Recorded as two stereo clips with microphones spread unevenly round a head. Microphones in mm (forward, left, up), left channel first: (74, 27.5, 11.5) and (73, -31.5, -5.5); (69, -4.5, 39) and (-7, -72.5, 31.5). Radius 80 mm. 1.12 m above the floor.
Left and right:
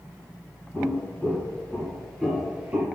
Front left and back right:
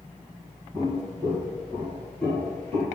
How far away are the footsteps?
About 1.6 m.